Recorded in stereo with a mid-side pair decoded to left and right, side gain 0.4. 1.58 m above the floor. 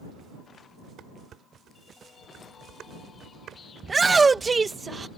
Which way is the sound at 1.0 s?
70° right.